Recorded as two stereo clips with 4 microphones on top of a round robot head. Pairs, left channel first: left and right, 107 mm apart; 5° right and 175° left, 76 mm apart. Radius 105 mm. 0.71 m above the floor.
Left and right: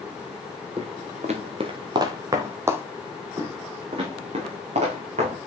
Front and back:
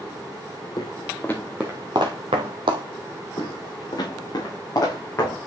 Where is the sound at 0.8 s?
45° right, 1.0 m; by 2.8 s 155° right, 1.4 m.